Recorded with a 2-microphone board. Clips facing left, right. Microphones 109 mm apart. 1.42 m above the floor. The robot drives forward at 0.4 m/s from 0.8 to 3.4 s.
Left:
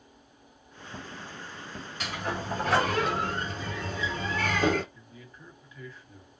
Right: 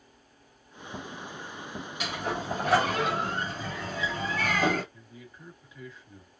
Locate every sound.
2.0 s a sliding door: 15° right (ahead or behind), 1.5 m; by 4.8 s 10° right (ahead or behind), 1.9 m
4.9 s a man speaking: 20° right (ahead or behind), 1.7 m